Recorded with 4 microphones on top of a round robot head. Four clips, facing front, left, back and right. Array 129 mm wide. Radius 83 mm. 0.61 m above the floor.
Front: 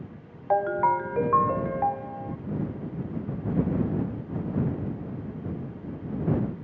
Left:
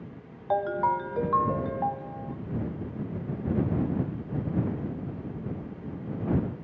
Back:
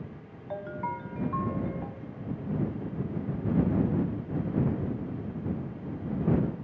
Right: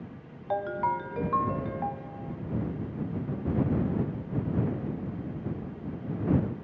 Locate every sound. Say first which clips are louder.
0.5 s a ringtone: left 3 dB, front 12 dB; 25° left